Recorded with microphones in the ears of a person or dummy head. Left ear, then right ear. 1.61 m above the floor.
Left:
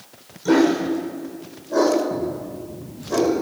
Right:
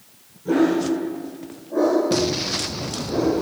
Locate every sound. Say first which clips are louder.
0.5 s a dog barking: left 2 dB; 65° left (ahead or behind), 2.5 m; by 3.3 s 50° left (ahead or behind), 3 m